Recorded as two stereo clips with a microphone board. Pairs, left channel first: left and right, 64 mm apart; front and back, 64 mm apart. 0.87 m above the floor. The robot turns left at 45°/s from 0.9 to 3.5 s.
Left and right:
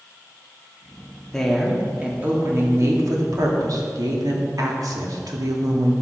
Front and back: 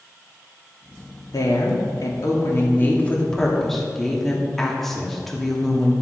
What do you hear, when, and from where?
1.3 s a woman speaking: 10° left, 2 m; by 5.9 s 85° right, 2 m